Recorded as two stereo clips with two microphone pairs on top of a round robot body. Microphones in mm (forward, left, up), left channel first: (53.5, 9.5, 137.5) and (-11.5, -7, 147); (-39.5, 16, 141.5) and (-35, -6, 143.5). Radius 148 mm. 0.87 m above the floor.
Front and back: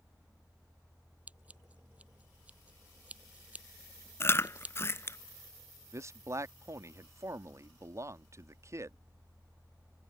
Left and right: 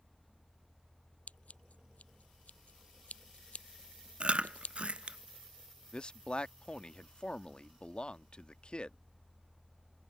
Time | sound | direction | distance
1.3 | scissors | 125° left | ?
4.2 | chewing | 35° right | ?
5.9 | a man speaking | 145° left | ?